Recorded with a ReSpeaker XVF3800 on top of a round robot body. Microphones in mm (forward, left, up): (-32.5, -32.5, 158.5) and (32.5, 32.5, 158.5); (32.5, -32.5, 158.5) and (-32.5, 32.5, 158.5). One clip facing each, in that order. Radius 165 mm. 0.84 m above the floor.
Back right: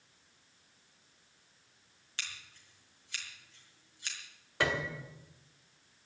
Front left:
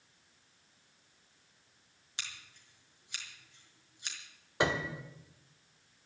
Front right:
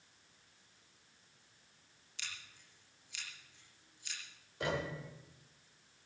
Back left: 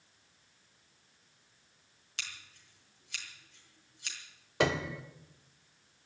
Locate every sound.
2.2 s scissors: 120° left, 5 m
4.6 s a piano: 120° left, 1.3 m